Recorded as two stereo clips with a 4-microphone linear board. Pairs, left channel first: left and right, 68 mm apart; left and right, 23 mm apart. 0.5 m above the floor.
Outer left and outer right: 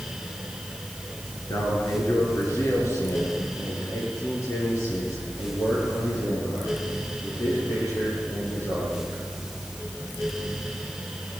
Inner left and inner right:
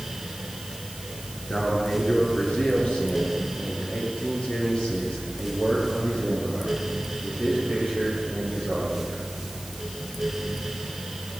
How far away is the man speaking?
About 8 m.